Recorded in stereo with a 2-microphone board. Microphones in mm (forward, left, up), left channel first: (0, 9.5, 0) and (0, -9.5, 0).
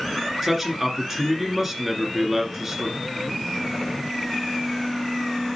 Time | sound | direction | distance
0.4 | a man speaking | 15° right (ahead or behind) | 1.8 m